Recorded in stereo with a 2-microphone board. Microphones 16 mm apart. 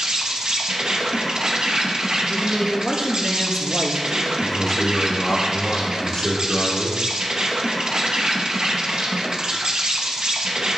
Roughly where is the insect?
Right.